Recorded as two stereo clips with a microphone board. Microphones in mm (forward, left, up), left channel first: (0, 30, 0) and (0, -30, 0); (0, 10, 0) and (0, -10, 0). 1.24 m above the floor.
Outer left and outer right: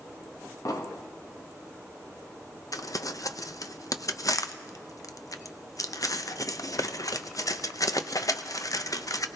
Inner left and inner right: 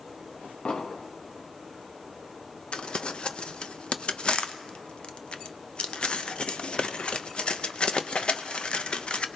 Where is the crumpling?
70° left (ahead or behind), 0.6 m.